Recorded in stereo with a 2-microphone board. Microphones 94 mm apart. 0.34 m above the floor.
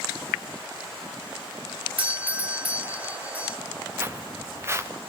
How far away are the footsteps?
About 1.6 m.